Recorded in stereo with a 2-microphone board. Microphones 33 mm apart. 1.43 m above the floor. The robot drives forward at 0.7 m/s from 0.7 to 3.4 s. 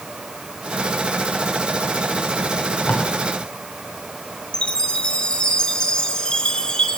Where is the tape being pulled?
65° left (ahead or behind), 6 m; by 3.1 s 70° left (ahead or behind), 6 m.